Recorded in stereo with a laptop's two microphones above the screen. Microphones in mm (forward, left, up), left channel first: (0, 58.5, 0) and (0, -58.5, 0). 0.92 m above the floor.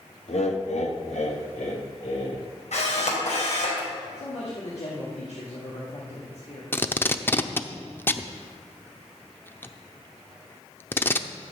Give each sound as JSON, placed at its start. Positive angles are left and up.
{"t": 0.3, "sound": "laughter", "side_deg": 65, "distance_m": 1.4}
{"t": 2.7, "sound": "a camera shutter", "side_deg": 75, "distance_m": 3.0}
{"t": 4.2, "sound": "a man speaking", "side_deg": 70, "distance_m": 2.5}
{"t": 6.7, "sound": "tape being pulled", "side_deg": 20, "distance_m": 0.7}